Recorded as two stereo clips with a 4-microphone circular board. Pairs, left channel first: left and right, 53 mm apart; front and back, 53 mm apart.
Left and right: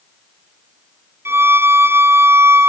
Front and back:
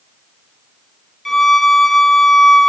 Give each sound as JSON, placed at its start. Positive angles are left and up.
{"t": 1.2, "sound": "a violin", "azimuth_deg": -90, "distance_m": 0.6}